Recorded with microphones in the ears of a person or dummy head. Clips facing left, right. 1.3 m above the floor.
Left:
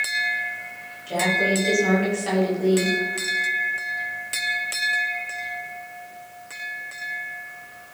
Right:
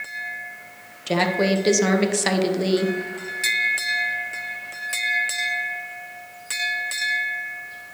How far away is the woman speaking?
About 1.2 m.